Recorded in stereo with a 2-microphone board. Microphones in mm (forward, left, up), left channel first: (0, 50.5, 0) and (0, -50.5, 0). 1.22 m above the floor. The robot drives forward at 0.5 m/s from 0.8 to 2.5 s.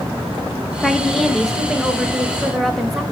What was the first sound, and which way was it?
A woman speaking, 5° left (ahead or behind).